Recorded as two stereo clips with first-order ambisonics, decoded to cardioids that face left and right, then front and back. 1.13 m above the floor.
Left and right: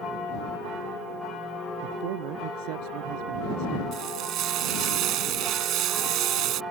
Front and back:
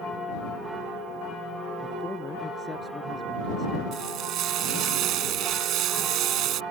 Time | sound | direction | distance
1.8 | a man speaking | 75° right | ?
3.9 | frying | 135° right | ?